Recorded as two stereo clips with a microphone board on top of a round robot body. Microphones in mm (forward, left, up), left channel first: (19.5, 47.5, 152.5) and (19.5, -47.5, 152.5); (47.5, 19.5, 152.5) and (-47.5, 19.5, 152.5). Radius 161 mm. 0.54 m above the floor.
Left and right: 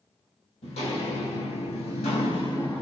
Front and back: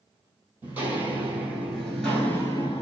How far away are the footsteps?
About 1.4 m.